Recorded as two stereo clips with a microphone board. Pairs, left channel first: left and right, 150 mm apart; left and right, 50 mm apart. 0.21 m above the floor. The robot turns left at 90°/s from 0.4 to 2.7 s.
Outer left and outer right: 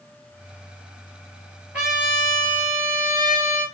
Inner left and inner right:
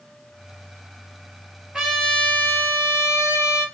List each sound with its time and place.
1.7 s a trumpet: 170° right, 0.9 m; by 3.6 s 105° left, 0.9 m